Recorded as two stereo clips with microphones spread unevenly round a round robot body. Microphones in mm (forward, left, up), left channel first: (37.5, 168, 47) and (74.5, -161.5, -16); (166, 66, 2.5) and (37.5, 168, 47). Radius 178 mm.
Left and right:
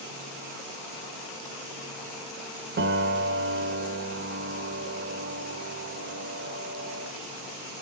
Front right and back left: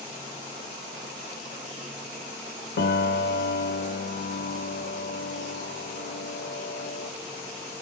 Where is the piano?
20° right, 1.1 m.